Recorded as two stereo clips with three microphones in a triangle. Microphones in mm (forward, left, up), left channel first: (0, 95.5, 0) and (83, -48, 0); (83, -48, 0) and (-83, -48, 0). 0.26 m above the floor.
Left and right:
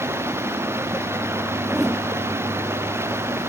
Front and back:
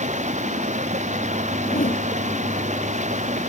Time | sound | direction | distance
0.0 | running water | 135° right | ?
1.6 | a whoosh | 30° left | ?